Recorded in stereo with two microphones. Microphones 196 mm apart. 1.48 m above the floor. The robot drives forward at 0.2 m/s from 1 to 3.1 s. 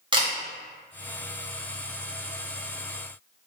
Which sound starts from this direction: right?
A camera shutter, at 0.1 s.